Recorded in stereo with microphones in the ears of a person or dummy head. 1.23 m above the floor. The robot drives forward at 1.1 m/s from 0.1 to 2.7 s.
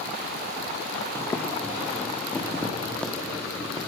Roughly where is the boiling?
Centre.